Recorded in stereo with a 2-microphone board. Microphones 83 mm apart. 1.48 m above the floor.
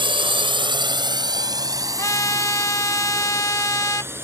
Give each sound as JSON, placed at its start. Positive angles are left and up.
{"t": 0.0, "sound": "a drone", "side_deg": -85}
{"t": 2.0, "sound": "a trumpet", "side_deg": 45}